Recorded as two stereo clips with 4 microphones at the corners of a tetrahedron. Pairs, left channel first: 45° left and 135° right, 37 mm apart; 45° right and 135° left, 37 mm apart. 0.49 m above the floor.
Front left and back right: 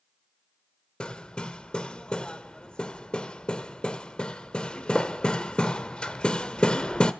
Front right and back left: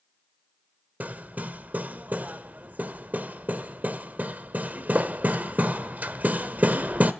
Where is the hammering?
105° left, 1.0 m.